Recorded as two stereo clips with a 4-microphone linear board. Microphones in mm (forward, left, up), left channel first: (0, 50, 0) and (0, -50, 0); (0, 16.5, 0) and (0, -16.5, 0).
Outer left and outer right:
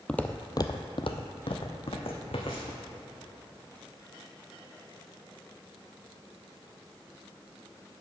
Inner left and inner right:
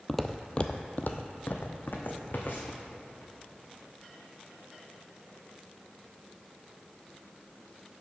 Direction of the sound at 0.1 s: 10° left (ahead or behind).